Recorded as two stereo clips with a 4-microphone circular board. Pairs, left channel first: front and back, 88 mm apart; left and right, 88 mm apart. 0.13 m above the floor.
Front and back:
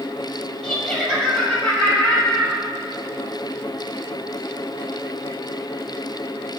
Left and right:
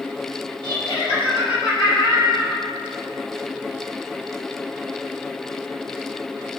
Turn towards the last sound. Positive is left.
turn(degrees=80)